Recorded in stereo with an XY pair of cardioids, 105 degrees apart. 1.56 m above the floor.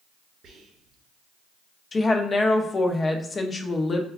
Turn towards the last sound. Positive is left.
turn(degrees=35)